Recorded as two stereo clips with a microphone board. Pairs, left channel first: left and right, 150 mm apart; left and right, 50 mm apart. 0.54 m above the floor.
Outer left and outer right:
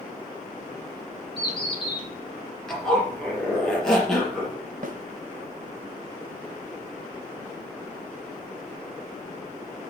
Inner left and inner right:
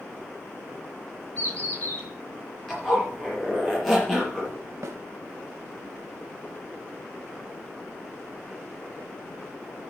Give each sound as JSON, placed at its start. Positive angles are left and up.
{"t": 1.4, "sound": "a bird", "side_deg": 35, "distance_m": 3.5}
{"t": 2.7, "sound": "a zipper", "side_deg": 5, "distance_m": 5.0}
{"t": 4.8, "sound": "a snare drum", "side_deg": -60, "distance_m": 1.0}